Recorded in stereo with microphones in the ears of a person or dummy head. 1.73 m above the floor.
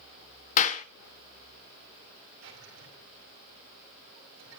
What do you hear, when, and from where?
0.6 s a clap: 40° left (ahead or behind), 1.0 m
2.4 s a drawer: 75° right (ahead or behind), 7 m